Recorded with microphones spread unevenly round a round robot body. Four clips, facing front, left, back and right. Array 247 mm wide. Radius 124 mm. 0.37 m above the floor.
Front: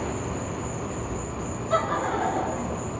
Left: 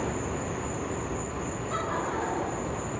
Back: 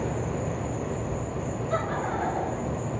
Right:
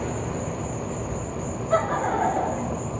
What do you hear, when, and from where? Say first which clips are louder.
0.0 s an insect: right 2 dB, back 1 dB; 140° right, 1.3 m
1.7 s laughter: right 9 dB, front 5 dB; 100° right, 2 m